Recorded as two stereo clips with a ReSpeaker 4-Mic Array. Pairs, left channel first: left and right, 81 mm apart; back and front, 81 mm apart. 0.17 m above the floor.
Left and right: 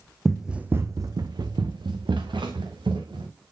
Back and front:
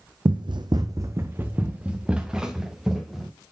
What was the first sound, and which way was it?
Running footsteps, 5° left.